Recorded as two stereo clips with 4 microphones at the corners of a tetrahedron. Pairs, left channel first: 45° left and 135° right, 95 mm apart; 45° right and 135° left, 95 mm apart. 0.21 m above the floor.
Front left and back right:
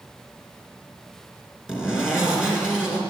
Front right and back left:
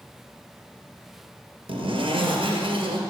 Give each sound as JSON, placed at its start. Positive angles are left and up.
{"t": 1.7, "sound": "a zipper", "azimuth_deg": 140, "distance_m": 2.5}